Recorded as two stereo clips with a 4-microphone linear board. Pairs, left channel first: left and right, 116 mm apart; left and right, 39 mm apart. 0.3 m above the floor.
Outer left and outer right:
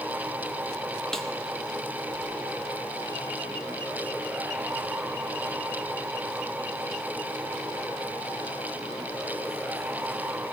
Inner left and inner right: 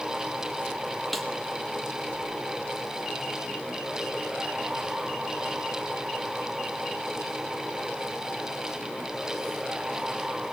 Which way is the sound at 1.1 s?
5° left (ahead or behind).